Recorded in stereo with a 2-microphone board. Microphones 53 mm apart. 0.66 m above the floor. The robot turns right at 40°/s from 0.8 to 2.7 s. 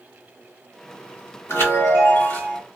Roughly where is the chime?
Left.